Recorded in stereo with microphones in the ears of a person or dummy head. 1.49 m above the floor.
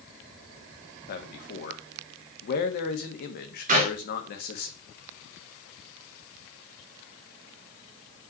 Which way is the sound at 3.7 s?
40° right (ahead or behind).